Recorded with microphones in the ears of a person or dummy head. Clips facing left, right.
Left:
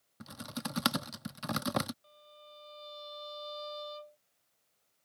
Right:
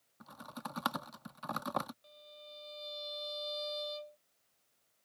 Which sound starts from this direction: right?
A violin, at 2.0 s.